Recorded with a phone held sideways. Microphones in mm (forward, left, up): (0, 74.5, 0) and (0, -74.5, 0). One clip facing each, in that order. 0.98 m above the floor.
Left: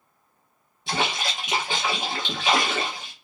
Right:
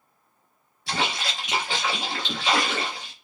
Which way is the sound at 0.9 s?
20° left (ahead or behind).